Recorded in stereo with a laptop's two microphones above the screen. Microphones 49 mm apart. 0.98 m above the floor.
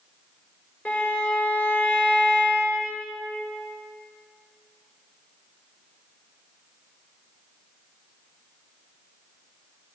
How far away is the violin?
About 4 m.